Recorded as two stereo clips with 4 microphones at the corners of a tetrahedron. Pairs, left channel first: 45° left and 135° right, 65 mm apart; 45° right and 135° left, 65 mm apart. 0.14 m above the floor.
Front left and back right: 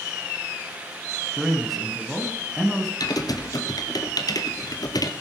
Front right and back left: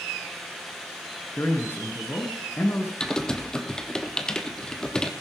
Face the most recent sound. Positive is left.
turn(degrees=35)